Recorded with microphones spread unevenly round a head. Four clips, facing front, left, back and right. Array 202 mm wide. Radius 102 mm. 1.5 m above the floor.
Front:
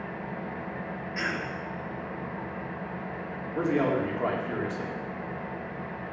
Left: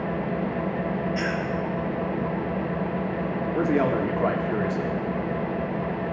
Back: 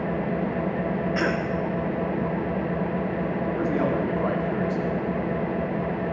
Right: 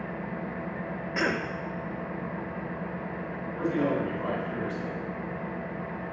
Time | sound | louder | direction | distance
0.0 | an engine running | left 8 dB, back 10 dB | 145° left | 0.8 m
1.1 | a cough | left 2 dB, back 5 dB | 155° right | 1.6 m
3.5 | a man speaking | left 4 dB, front 1 dB | 80° left | 4 m